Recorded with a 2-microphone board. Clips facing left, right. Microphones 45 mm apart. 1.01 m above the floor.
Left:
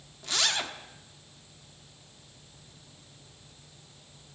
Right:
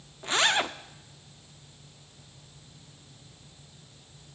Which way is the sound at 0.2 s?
30° right (ahead or behind).